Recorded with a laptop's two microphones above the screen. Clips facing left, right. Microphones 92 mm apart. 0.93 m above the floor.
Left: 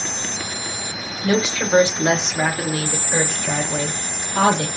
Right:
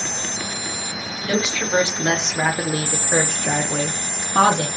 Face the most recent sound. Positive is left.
turn(degrees=-75)  # may be behind; listen again after turning